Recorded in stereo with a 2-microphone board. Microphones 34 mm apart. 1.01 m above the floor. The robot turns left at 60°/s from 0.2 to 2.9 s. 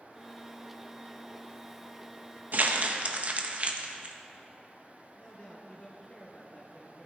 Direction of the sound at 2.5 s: 65° right (ahead or behind).